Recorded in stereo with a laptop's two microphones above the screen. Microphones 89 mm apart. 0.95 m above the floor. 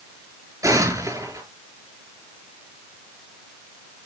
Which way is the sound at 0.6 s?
40° right (ahead or behind).